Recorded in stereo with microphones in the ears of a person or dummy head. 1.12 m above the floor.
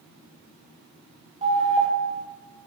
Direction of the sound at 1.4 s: 35° right (ahead or behind).